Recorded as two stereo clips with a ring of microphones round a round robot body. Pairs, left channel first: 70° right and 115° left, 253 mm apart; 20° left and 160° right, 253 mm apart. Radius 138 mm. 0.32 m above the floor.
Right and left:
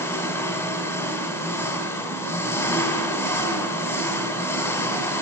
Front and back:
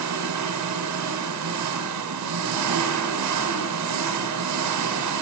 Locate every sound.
0.0 s an engine running: 150° right, 1.4 m